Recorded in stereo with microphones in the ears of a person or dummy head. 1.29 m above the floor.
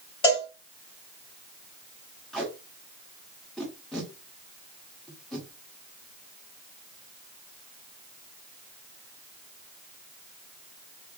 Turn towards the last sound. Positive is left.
turn(degrees=5)  # may be behind; listen again after turning